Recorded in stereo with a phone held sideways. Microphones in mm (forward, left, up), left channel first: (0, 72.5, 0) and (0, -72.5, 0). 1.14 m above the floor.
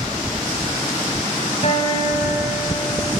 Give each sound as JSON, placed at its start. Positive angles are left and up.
{"t": 1.6, "sound": "a guitar", "side_deg": 45, "distance_m": 4.5}